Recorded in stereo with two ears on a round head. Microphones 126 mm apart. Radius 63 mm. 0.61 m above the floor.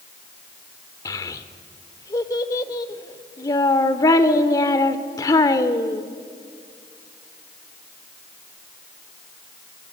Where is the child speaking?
25° left (ahead or behind), 1.2 m.